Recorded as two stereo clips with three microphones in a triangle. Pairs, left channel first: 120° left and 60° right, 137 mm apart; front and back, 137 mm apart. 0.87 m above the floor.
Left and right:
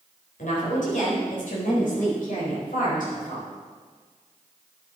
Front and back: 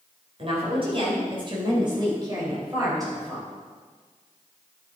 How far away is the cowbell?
No cowbell in this recording.